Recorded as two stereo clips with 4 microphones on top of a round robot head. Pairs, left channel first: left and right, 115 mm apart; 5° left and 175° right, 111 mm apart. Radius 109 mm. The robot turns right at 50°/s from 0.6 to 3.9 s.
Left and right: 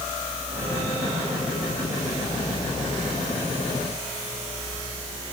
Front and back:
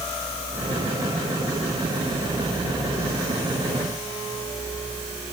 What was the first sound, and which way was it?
Only background noise.